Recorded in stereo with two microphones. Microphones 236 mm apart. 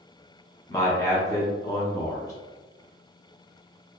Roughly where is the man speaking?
Centre.